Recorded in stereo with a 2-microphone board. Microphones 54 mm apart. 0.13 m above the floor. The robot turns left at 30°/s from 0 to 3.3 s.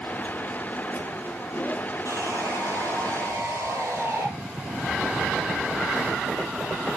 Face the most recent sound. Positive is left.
turn(degrees=-120)